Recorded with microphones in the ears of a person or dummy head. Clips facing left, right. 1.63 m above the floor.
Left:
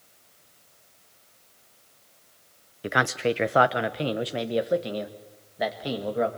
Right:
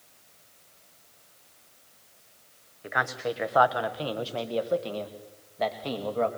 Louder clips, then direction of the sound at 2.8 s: Left 6 dB; 45° left (ahead or behind).